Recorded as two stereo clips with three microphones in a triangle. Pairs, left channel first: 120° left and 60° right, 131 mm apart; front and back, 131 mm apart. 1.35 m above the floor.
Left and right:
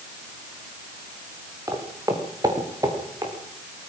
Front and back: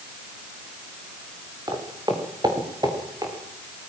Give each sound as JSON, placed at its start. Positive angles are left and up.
{"t": 1.7, "sound": "footsteps", "azimuth_deg": -125, "distance_m": 5.0}